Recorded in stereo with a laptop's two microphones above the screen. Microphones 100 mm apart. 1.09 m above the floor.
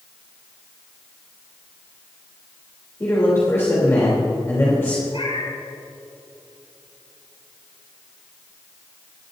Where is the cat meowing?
70° left (ahead or behind), 5.5 m.